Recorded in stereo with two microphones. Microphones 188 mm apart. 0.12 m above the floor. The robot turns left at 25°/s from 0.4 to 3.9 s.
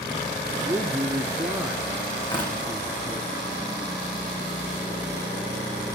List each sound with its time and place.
0.6 s a man speaking: 140° right, 1.3 m; by 3.2 s 155° left, 1.3 m
2.2 s tearing paper: 20° left (ahead or behind), 10 m; by 2.6 s 30° left (ahead or behind), 10 m